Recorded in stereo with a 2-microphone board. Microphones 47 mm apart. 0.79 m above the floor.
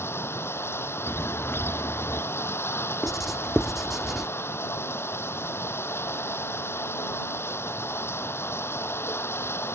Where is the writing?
5° right (ahead or behind).